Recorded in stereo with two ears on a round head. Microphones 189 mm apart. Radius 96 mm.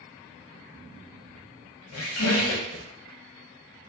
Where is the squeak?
75° left (ahead or behind), 0.6 m.